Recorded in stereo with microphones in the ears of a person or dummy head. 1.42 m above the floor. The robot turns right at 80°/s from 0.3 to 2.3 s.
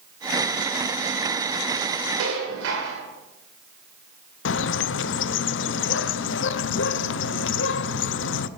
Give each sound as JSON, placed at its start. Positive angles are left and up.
{"t": 2.2, "sound": "dishes clattering", "side_deg": -75, "distance_m": 3.0}
{"t": 4.5, "sound": "a bird", "side_deg": 60, "distance_m": 0.5}